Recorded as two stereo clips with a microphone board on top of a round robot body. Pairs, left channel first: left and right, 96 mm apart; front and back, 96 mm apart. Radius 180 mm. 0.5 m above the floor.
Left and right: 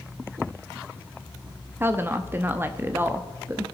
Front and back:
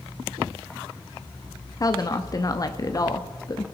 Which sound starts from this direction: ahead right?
A woman speaking, at 1.8 s.